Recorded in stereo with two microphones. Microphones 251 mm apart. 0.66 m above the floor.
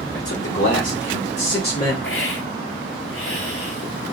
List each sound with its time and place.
0.1 s a man speaking: 60° left (ahead or behind), 2 m; by 1.9 s 35° left (ahead or behind), 1.8 m
2.0 s a hiss: 55° left (ahead or behind), 2.5 m